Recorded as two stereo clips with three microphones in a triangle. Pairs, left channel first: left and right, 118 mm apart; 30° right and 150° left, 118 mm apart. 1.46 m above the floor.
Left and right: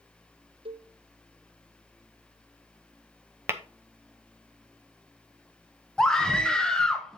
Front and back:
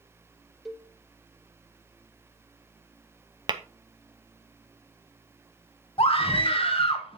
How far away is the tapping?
About 0.8 m.